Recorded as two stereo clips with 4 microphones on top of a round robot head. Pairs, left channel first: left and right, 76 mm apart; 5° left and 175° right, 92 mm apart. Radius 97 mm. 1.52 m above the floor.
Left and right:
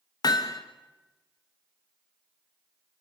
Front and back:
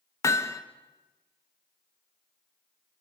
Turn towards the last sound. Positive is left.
turn(degrees=60)